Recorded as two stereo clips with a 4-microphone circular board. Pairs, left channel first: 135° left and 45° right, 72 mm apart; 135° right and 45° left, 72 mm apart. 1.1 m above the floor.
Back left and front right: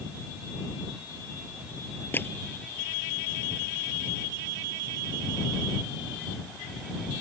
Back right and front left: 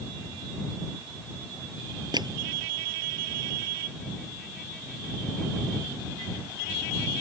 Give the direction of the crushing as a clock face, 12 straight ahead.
10 o'clock.